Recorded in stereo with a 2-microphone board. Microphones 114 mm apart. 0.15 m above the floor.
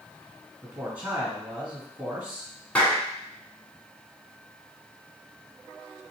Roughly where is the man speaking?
Centre.